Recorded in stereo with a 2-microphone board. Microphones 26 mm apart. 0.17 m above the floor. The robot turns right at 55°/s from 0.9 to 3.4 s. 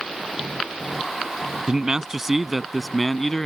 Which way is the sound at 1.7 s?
65° right.